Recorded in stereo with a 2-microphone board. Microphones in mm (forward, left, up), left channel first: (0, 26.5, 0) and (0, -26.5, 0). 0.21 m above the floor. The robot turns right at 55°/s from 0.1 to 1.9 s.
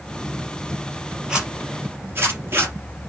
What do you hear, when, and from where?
1.3 s a zipper: 10° right (ahead or behind), 3.5 m; by 3.1 s 40° right (ahead or behind), 3.5 m